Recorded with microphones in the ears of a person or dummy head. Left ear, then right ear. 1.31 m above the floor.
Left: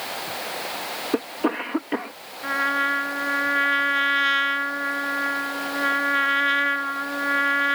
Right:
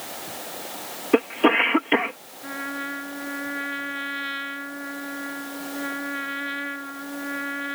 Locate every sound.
0.0 s running water: 55° left (ahead or behind)
1.1 s a cough: 70° right (ahead or behind)
2.4 s a trumpet: 40° left (ahead or behind)